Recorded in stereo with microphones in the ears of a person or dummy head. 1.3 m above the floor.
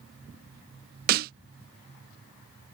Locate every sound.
1.1 s a snare drum: 50° right (ahead or behind)